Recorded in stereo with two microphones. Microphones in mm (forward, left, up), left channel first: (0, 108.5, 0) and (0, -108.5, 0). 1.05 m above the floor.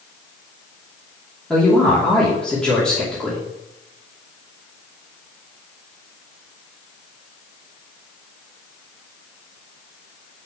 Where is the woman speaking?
5° left (ahead or behind), 3 m.